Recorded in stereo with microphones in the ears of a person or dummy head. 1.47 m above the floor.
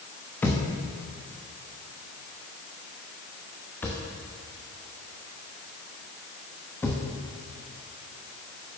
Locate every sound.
0.4 s a thud: 10° left (ahead or behind), 0.9 m